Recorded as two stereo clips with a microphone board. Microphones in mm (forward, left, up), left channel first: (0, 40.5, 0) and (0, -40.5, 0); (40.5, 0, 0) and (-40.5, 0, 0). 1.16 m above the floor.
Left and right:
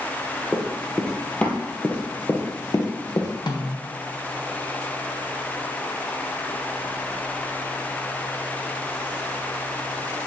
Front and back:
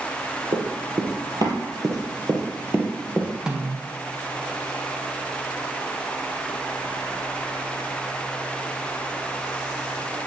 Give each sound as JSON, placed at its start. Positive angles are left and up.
{"t": 0.5, "sound": "running footsteps", "azimuth_deg": 180, "distance_m": 2.0}
{"t": 3.5, "sound": "a snare drum", "azimuth_deg": 105, "distance_m": 1.3}